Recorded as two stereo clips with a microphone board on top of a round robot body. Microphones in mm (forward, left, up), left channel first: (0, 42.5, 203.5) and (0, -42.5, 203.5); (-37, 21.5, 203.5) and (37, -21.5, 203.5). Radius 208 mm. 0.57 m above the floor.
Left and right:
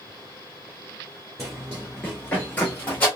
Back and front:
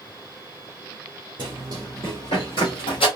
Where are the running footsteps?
30° right, 0.6 m; by 3.1 s 160° left, 1.3 m.